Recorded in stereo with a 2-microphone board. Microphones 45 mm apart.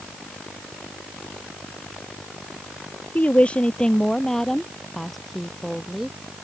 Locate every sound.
3.1 s a woman speaking: 35° left (ahead or behind); by 6.2 s 5° right (ahead or behind)